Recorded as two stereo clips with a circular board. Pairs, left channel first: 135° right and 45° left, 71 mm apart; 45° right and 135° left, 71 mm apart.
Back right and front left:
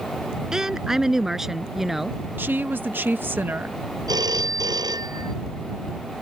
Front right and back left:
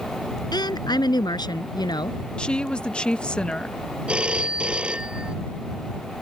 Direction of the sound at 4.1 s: 60° left.